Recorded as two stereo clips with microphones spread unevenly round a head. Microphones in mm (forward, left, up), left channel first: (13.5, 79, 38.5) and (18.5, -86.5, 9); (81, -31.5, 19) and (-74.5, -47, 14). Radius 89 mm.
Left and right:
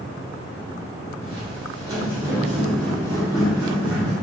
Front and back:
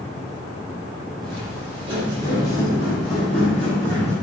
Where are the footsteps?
140° right, 2.0 m; by 4.1 s 80° left, 2 m.